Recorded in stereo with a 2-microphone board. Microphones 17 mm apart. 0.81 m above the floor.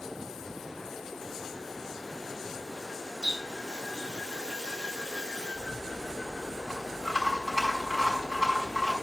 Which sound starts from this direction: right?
A running tap, at 3.2 s.